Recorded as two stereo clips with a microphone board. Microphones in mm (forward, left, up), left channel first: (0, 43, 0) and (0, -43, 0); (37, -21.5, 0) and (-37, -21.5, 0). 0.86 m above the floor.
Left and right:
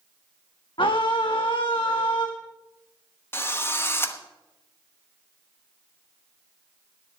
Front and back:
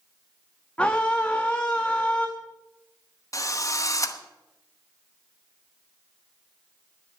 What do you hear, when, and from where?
0.8 s a scream: 75° left, 1.0 m
3.3 s a drill: 30° left, 1.0 m